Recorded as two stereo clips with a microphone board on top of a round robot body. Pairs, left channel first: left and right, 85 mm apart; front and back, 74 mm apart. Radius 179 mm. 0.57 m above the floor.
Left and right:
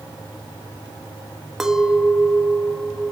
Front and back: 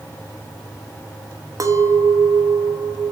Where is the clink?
175° right, 0.8 m.